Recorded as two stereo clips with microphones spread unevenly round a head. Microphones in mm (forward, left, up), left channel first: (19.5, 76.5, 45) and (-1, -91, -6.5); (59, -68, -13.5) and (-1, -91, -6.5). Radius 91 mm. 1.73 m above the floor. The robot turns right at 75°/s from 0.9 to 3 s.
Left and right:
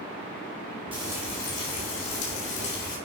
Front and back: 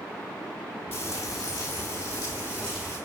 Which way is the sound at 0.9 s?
30° right.